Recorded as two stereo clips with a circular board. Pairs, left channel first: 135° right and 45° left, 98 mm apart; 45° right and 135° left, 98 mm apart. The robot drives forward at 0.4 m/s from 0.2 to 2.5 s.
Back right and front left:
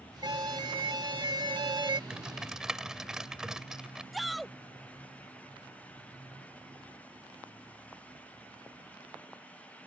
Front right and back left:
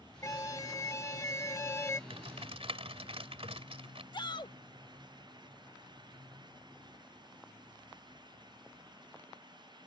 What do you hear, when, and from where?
0.2 s an alarm: 5° left; by 2.0 s 15° left
2.1 s typing on a keyboard: 125° left; by 4.0 s 130° left
4.1 s a shout: 45° right